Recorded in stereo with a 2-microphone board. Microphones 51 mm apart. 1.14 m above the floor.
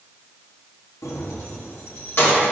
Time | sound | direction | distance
1.0 | keys jangling | 80° left | 1.4 m